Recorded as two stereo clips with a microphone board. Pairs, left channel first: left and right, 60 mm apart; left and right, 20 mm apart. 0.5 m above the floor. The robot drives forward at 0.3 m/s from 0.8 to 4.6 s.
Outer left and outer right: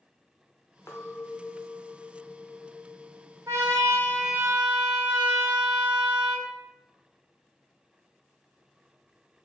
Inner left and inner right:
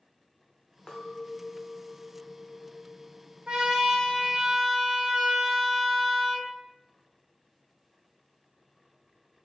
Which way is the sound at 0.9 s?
50° left (ahead or behind).